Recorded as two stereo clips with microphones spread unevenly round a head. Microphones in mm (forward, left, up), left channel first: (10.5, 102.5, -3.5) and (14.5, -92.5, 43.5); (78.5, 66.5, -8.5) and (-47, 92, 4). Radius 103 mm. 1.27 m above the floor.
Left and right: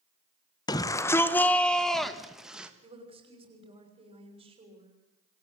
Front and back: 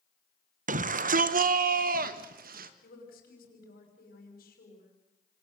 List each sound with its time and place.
0.7 s a shout: 155° left, 1.3 m; by 2.7 s 175° right, 2.0 m
2.8 s a woman speaking: 25° right, 6 m